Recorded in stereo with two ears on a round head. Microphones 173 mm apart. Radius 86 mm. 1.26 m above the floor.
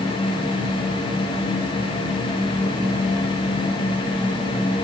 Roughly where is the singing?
I don't hear singing.